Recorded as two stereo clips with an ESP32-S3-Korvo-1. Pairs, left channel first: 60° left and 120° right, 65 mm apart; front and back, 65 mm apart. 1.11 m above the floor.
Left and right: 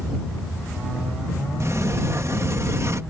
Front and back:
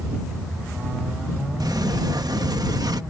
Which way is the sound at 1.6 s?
165° right.